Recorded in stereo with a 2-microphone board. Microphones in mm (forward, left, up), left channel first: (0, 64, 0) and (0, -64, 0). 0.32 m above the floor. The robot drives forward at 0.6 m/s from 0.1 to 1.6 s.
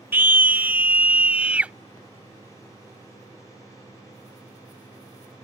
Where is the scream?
15° right (ahead or behind); by 1.7 s 10° right (ahead or behind).